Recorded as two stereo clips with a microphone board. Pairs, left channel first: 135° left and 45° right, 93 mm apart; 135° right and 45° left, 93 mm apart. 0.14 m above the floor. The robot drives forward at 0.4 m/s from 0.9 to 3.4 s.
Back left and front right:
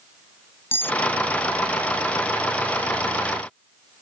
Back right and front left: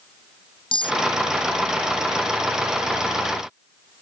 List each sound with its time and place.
0.7 s cutlery clinking: 160° right